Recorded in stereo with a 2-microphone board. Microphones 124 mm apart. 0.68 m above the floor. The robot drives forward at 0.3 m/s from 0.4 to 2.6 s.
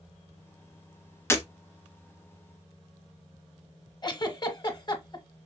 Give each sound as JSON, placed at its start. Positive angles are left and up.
{"t": 1.3, "sound": "breaking glass", "side_deg": 20, "distance_m": 0.7}
{"t": 4.0, "sound": "a giggle", "side_deg": 35, "distance_m": 0.6}